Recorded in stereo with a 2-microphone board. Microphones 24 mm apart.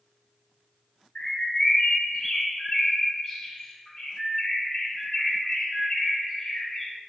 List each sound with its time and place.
1.1 s a bird: 20° left (ahead or behind), 1.6 m